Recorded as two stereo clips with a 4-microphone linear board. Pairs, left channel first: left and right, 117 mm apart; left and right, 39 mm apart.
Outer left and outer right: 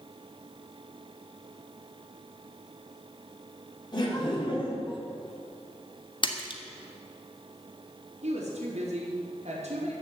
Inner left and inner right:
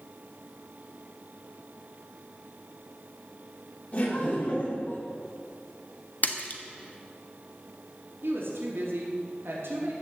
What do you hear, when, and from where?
3.9 s laughter: 40° left (ahead or behind), 4.5 m; by 5.0 s 50° left (ahead or behind), 3 m
6.2 s a splash: 45° left (ahead or behind), 1.4 m
8.2 s a woman speaking: 75° right (ahead or behind), 4 m